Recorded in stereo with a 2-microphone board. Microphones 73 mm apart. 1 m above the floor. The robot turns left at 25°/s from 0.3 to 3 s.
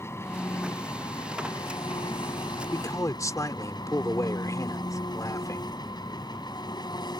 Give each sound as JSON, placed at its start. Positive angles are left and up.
{"t": 0.0, "sound": "an engine running", "azimuth_deg": 140}
{"t": 2.7, "sound": "a man speaking", "side_deg": 55}